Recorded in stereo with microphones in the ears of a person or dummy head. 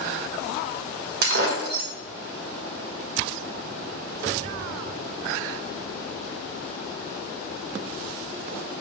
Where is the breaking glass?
60° right (ahead or behind), 2 m.